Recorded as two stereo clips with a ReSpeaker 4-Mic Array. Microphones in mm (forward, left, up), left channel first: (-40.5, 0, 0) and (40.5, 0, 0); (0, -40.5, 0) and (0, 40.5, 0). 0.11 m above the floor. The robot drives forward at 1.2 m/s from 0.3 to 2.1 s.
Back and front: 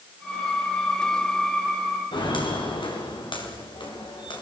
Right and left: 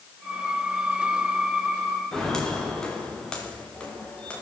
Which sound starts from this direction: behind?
Footsteps, at 2.1 s.